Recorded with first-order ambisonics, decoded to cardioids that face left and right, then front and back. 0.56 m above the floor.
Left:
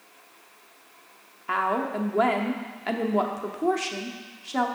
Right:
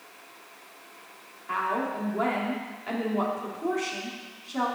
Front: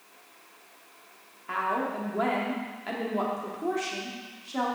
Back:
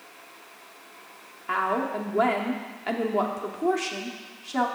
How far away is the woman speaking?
About 0.9 m.